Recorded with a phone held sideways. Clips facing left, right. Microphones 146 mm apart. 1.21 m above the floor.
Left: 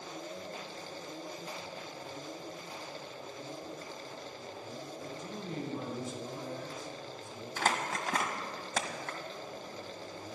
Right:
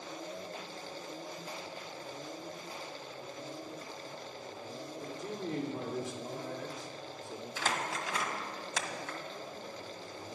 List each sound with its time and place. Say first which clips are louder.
5.0 s a man speaking: right 2 dB; 80° right, 2.5 m
7.6 s crumpling: left 3 dB; 50° left (ahead or behind), 1.6 m